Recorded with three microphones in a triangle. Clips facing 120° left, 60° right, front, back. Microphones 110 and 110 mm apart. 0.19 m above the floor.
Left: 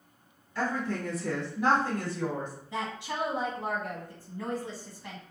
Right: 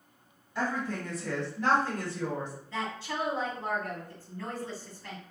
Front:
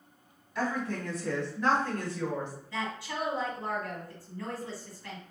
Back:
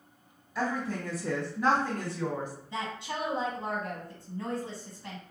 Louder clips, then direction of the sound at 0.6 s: Left 1 dB, even; 95° right.